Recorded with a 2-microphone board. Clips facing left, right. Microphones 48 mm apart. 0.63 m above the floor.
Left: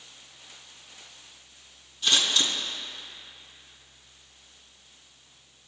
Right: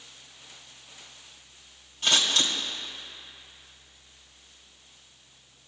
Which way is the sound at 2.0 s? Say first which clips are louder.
Even; 55° right (ahead or behind).